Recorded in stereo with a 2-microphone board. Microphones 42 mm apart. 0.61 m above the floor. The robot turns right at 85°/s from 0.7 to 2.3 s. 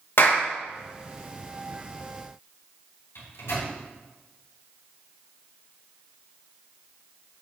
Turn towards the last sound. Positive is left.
turn(degrees=85)